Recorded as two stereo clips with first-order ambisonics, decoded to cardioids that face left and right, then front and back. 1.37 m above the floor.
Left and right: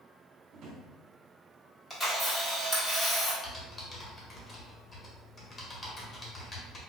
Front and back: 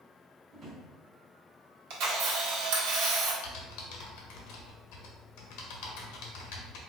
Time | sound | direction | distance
0.5 | a drawer | 125° right | 0.9 m
1.9 | a camera shutter | 165° left | 1.1 m
3.4 | typing on a keyboard | 20° left | 0.8 m